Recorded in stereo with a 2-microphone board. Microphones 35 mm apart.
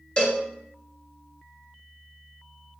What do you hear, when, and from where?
0.2 s a cowbell: 30° left (ahead or behind), 0.8 m